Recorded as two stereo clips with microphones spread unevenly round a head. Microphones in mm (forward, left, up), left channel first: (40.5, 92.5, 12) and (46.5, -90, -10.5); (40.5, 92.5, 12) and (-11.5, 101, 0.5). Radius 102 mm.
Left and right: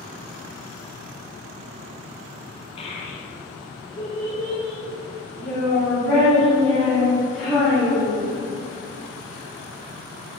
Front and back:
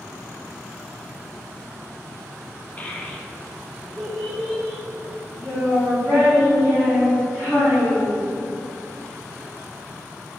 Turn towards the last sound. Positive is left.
turn(degrees=95)